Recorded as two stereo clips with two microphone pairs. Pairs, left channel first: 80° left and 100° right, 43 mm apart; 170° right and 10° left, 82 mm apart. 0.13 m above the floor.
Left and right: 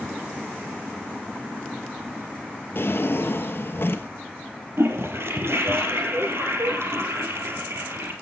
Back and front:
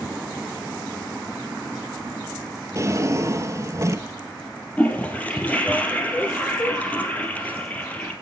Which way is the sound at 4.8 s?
100° right.